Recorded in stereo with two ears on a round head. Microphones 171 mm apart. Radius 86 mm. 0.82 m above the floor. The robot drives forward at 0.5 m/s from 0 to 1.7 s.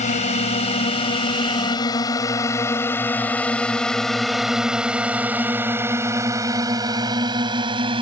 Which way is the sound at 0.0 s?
40° left (ahead or behind).